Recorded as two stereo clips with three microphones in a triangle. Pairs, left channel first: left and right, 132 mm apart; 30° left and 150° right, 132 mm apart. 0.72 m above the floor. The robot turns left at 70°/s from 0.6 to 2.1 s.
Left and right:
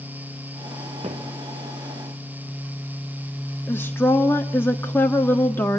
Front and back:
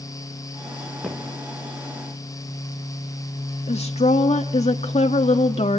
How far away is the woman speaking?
About 1.3 m.